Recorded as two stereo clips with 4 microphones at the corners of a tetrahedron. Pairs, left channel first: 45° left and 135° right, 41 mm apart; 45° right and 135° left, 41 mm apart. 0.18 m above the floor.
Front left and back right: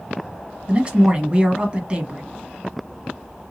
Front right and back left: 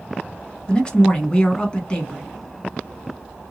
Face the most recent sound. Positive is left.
turn(degrees=-95)